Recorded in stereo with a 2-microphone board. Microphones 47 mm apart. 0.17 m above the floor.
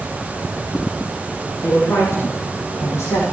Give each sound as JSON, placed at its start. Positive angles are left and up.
{"t": 1.6, "sound": "a woman speaking", "side_deg": 65, "distance_m": 9.0}